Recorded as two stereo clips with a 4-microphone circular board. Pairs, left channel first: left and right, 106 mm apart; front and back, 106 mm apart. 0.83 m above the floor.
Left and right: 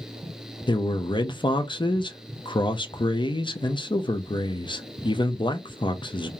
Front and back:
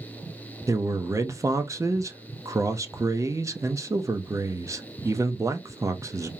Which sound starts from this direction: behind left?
A man speaking, at 0.7 s.